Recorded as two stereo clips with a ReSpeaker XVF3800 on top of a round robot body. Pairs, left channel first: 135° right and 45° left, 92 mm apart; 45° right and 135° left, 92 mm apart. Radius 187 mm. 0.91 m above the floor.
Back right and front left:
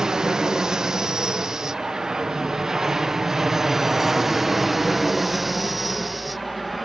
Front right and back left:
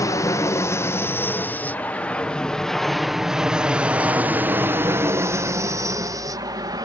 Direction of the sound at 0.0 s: 35° right.